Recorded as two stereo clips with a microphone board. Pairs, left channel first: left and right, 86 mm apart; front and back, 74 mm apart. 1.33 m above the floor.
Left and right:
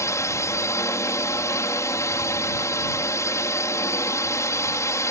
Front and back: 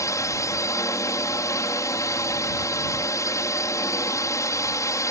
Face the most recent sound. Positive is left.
turn(degrees=40)